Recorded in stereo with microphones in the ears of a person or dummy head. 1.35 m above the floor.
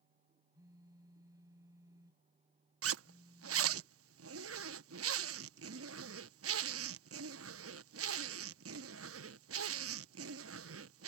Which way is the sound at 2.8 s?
75° right (ahead or behind).